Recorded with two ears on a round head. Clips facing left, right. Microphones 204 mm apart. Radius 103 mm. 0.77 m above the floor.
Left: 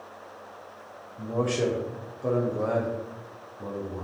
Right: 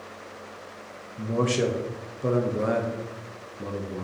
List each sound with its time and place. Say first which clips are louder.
1.2 s a man speaking: right 2 dB; 25° right (ahead or behind), 0.6 m